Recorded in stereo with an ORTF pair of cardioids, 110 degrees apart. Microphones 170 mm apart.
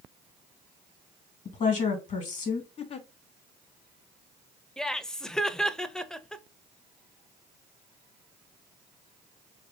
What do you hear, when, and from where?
1.4 s a woman speaking: 50° left, 1.7 m
2.8 s a giggle: 45° left, 0.6 m
4.8 s laughter: 5° left, 0.6 m